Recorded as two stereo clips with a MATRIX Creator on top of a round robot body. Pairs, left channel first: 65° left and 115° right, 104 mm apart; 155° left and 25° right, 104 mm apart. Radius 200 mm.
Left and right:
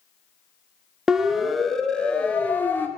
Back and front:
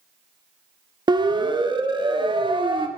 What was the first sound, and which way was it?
A siren, 30° right.